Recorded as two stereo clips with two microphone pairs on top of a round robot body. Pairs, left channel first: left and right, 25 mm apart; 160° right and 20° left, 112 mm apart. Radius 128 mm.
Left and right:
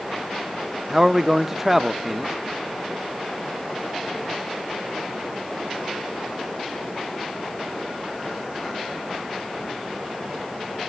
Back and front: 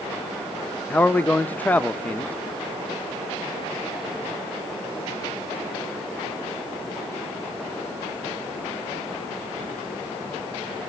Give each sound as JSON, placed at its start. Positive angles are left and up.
{"t": 0.9, "sound": "a man speaking", "azimuth_deg": -125, "distance_m": 0.9}